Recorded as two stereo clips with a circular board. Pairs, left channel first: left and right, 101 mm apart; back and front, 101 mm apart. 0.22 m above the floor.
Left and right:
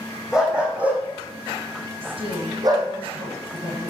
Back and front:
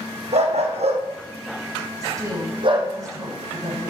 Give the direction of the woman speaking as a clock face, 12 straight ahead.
2 o'clock.